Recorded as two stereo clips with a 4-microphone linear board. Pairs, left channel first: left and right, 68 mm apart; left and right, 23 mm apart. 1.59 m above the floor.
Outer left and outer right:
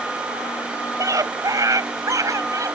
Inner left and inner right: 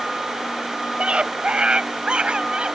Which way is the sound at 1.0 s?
55° right (ahead or behind).